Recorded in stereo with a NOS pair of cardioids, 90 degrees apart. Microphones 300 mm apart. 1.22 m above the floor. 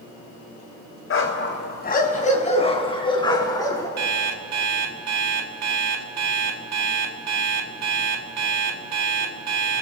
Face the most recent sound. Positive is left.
turn(degrees=-60)